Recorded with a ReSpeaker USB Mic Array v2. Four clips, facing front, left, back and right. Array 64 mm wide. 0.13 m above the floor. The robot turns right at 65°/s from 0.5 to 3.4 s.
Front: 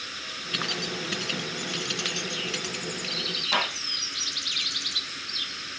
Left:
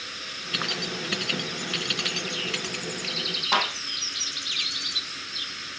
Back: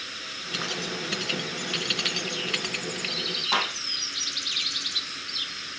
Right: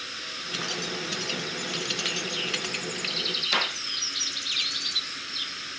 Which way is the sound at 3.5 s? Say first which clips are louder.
Left 4 dB, even; 110° left.